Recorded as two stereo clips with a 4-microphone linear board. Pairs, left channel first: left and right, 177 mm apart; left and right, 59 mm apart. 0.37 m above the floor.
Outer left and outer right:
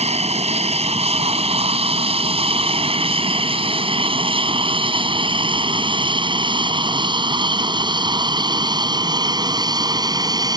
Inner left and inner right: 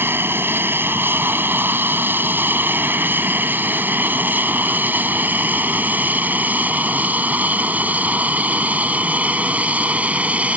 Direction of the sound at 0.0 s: 35° right (ahead or behind).